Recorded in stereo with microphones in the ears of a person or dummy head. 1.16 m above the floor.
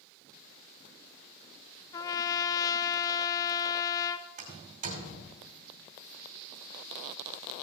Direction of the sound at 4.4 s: 40° right (ahead or behind).